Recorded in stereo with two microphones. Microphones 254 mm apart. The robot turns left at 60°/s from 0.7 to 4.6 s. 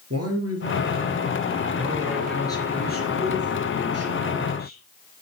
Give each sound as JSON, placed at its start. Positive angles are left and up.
{"t": 0.1, "sound": "a man speaking", "azimuth_deg": -85, "distance_m": 4.0}